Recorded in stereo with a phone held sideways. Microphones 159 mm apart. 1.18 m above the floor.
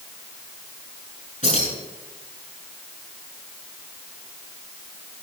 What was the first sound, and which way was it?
Keys jangling, 45° left (ahead or behind).